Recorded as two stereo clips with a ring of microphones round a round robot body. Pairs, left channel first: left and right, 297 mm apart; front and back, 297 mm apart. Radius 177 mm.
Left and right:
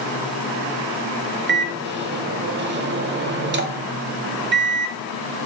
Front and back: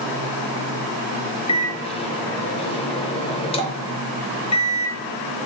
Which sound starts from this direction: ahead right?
A microwave, at 1.5 s.